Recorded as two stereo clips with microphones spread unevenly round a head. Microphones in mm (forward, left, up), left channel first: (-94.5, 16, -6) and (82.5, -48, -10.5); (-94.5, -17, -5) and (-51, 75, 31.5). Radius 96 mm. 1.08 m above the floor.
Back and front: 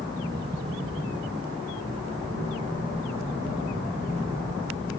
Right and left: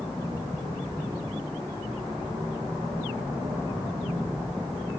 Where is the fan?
80° right, 1.5 m.